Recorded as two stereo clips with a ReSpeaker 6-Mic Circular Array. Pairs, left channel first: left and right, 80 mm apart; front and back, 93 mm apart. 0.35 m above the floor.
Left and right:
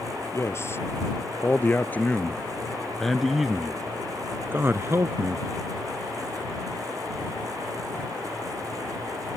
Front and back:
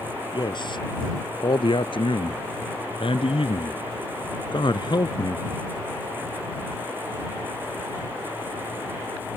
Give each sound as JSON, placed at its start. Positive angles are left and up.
{"t": 0.3, "sound": "a man speaking", "azimuth_deg": 35}